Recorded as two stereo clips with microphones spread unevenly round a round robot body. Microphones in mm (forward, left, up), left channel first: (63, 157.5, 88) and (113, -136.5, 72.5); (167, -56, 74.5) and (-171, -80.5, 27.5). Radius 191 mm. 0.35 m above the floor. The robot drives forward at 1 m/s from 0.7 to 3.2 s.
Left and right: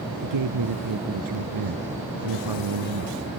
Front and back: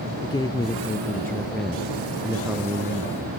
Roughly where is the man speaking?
Right.